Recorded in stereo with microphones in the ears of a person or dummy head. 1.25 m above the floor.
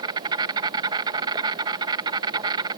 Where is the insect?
20° right (ahead or behind).